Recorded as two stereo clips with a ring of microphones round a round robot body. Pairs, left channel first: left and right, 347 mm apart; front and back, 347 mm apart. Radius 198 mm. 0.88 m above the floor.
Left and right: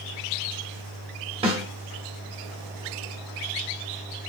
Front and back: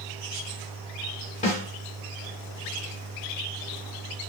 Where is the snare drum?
40° right, 0.5 m.